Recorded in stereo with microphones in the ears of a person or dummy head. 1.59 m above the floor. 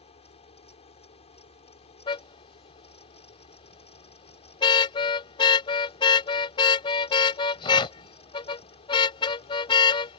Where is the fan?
30° left (ahead or behind).